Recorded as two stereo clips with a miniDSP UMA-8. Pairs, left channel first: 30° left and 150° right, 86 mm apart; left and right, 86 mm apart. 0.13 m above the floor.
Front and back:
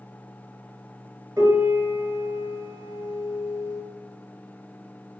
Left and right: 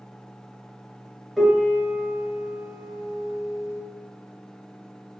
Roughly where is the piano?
Behind.